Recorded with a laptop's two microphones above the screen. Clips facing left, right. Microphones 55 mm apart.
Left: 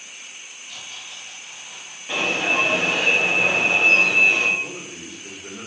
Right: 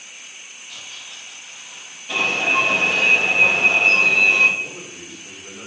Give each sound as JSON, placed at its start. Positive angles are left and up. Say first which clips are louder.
{"t": 0.7, "sound": "tearing paper", "louder": "even", "side_deg": -10, "distance_m": 0.9}
{"t": 2.1, "sound": "an alarm", "louder": "right 2 dB", "side_deg": 20, "distance_m": 1.1}
{"t": 4.6, "sound": "a man speaking", "louder": "even", "side_deg": 55, "distance_m": 0.9}